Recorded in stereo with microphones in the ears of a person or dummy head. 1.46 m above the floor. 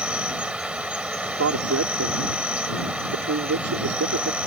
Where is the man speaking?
85° right.